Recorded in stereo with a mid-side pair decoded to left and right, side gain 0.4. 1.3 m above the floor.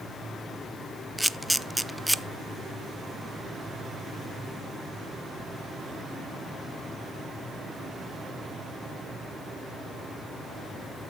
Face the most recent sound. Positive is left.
turn(degrees=0)